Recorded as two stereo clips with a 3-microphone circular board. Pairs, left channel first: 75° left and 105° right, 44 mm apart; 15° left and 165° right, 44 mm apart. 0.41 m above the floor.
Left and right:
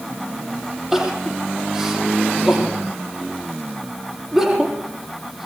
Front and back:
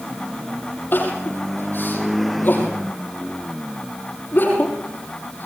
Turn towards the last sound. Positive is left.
turn(degrees=-25)